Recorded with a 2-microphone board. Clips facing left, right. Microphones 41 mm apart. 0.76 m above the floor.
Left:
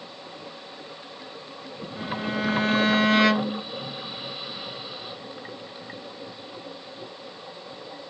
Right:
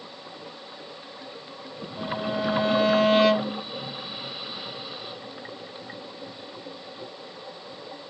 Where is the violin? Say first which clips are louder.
Right 1 dB; 55° left (ahead or behind), 1.9 m.